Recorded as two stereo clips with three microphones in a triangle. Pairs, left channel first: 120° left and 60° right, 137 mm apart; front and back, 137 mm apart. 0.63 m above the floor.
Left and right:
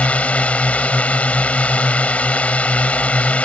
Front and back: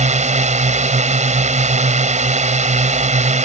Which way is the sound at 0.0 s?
160° right.